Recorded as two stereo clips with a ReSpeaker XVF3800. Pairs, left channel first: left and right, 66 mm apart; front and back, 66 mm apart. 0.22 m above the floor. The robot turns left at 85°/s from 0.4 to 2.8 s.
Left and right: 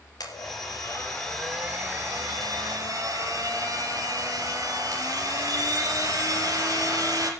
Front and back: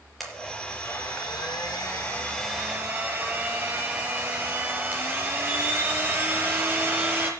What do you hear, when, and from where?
0.2 s a blender: 85° left, 4.5 m; by 7.3 s 120° right, 4.5 m